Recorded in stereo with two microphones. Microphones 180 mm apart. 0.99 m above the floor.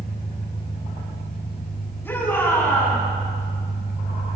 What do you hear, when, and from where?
0.0 s an engine running: 70° left (ahead or behind), 5 m
2.0 s a shout: 15° left (ahead or behind), 7.5 m